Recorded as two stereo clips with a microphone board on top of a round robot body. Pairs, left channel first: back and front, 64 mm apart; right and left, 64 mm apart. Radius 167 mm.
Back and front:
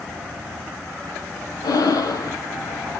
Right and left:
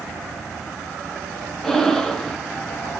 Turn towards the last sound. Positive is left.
turn(degrees=-175)